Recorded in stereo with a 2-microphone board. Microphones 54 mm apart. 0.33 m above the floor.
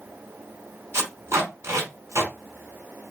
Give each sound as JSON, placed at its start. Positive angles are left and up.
{"t": 0.9, "sound": "tape being pulled", "side_deg": -50, "distance_m": 2.0}